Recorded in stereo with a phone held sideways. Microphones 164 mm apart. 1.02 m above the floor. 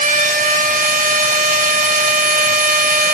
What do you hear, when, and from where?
0.0 s a machine running: 55° right (ahead or behind), 1.2 m